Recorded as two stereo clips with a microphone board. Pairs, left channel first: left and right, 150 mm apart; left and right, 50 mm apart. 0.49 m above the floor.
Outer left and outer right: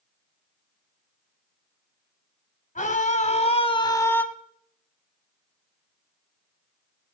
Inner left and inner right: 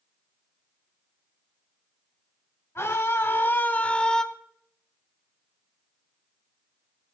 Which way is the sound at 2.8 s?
60° left (ahead or behind).